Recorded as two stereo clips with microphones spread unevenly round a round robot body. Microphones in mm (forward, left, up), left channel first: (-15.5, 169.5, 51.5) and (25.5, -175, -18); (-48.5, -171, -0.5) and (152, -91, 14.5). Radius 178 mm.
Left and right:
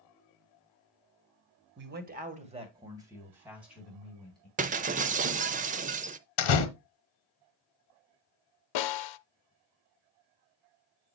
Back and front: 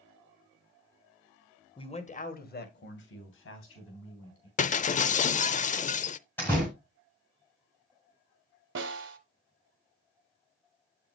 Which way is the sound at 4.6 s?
125° right.